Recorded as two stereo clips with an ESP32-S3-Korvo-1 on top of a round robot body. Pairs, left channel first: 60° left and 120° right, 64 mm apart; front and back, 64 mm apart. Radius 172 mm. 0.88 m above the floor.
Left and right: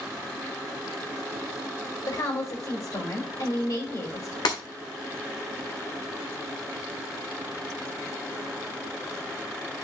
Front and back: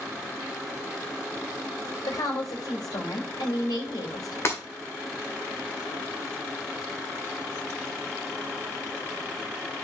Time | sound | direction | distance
2.1 | a woman speaking | 25° left | 4.5 m
4.5 | breaking glass | 55° left | 1.8 m